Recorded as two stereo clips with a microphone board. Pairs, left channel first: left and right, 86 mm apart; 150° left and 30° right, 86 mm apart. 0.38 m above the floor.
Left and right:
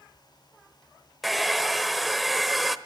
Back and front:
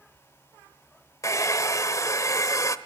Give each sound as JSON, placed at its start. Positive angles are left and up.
{"t": 1.2, "sound": "a hair dryer", "azimuth_deg": 180, "distance_m": 0.9}